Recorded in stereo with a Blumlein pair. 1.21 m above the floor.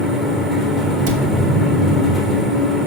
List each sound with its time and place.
0.0 s a fan: straight ahead, 1.7 m
1.1 s a cupboard door: 45° right, 1.8 m